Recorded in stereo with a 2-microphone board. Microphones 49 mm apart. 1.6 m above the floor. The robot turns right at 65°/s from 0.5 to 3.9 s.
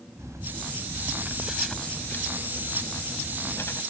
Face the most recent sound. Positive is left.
turn(degrees=150)